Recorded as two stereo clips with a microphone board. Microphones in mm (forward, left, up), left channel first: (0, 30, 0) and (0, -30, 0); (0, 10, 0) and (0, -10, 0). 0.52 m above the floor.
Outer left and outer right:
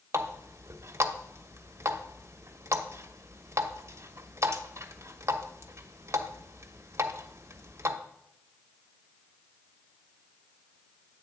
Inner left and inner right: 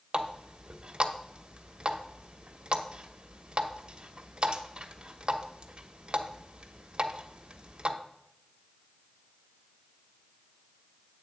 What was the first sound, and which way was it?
A running tap, 50° right (ahead or behind).